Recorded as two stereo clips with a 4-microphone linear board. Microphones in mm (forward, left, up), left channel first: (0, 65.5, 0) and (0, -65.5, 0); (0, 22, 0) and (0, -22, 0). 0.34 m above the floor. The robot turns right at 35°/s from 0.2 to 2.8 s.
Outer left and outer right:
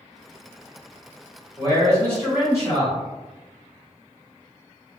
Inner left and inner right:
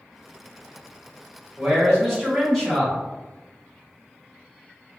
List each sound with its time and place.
1.6 s a man speaking: 5° right, 1.5 m; by 3.0 s 35° left, 1.5 m